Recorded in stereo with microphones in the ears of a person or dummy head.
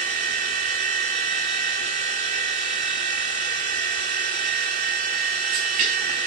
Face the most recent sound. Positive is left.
turn(degrees=-30)  # may be behind; listen again after turning